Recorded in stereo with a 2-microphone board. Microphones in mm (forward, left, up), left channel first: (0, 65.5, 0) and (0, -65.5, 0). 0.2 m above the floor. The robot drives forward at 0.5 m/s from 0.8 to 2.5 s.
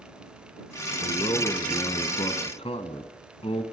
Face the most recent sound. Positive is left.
turn(degrees=45)  # may be behind; listen again after turning